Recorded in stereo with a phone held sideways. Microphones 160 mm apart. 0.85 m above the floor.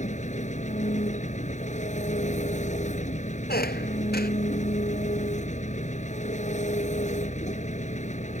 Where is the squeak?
80° left.